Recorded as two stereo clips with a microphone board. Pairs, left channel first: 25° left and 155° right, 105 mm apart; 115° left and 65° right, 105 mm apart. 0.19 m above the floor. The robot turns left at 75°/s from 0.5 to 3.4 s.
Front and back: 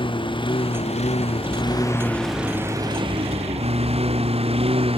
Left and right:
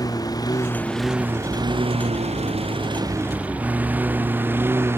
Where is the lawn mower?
60° left; by 5.0 s 135° right.